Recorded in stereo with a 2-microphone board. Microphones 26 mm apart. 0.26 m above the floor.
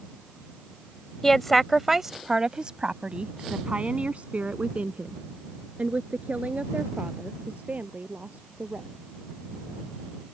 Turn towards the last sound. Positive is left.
turn(degrees=-70)  # may be behind; listen again after turning